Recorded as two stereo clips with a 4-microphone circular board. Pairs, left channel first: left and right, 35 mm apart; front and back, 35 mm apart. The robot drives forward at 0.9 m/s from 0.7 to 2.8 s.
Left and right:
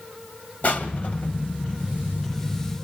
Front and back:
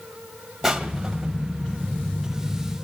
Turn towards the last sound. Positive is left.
turn(degrees=140)